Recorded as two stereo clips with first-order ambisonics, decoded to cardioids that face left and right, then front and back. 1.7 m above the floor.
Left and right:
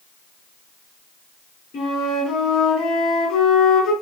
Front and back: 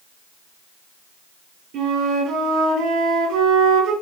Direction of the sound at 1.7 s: 140° left.